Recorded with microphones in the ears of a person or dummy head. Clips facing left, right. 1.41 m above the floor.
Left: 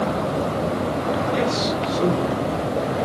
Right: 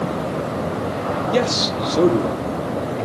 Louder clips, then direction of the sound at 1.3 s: Right 2 dB; 80° right.